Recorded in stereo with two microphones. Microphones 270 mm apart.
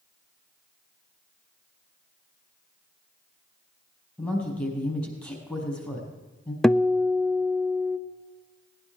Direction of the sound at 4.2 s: 5° left (ahead or behind).